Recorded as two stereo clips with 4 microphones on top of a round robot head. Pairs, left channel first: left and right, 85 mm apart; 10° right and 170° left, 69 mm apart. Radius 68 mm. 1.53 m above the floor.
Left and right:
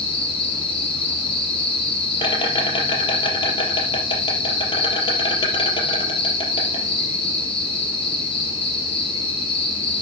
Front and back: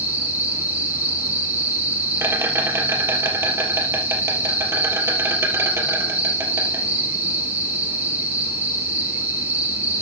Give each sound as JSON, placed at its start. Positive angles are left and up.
{"t": 0.0, "sound": "an insect", "azimuth_deg": 115, "distance_m": 3.5}